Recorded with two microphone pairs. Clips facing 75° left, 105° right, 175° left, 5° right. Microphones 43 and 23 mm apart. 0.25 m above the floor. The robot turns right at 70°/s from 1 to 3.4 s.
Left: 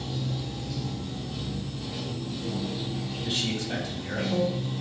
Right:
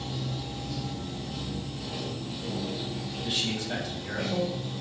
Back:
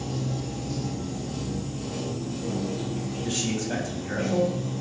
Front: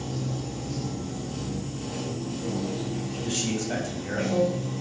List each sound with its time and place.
0.0 s running water: 155° right, 1.6 m; by 4.8 s 10° left, 1.6 m
3.2 s a man speaking: 35° right, 1.0 m; by 4.5 s 20° right, 1.0 m